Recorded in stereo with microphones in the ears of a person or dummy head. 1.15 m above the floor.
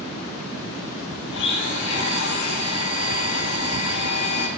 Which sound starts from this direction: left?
A blender, at 1.3 s.